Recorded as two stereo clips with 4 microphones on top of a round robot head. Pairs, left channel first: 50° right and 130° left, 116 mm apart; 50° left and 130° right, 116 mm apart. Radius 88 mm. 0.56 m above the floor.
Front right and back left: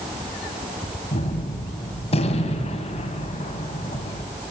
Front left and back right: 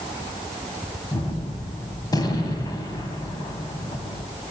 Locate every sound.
1.1 s a gunshot: 10° right, 2.5 m